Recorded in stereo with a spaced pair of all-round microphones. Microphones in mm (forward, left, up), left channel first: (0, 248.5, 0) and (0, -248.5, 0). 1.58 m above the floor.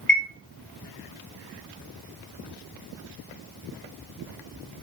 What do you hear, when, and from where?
0.1 s a chime: 25° left (ahead or behind), 2.5 m